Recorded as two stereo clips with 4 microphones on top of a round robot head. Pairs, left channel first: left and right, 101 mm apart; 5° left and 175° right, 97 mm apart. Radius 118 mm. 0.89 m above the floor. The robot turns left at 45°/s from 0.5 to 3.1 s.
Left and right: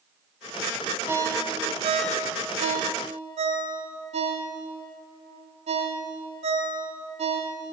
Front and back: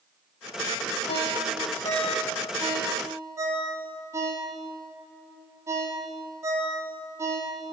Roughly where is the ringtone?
Ahead.